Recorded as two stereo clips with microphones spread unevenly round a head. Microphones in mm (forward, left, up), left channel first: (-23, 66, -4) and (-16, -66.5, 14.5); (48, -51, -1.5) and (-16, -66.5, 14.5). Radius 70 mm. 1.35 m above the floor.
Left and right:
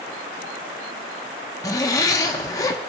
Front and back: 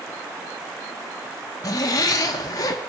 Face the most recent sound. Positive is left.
turn(degrees=30)